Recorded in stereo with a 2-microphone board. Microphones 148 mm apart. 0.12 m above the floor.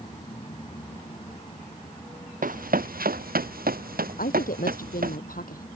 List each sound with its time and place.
2.4 s running footsteps: 70° right (ahead or behind); by 5.2 s 80° right
4.2 s a woman speaking: 75° left (ahead or behind)